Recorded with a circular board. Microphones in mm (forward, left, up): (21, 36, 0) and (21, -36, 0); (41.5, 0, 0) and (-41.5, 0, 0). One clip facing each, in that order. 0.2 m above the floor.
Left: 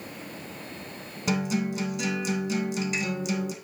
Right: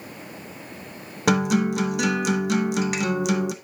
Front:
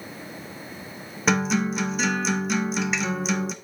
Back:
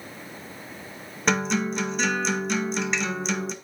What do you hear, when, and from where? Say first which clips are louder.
1.3 s a guitar: right 7 dB, front 2 dB; 90° right, 0.5 m